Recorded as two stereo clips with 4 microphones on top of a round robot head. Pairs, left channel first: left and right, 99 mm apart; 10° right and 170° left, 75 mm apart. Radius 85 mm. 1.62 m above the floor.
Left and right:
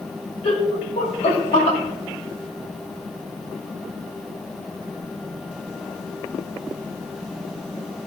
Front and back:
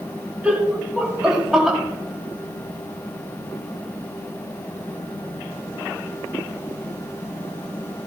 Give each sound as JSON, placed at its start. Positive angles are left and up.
{"t": 0.4, "sound": "laughter", "azimuth_deg": 100, "distance_m": 2.5}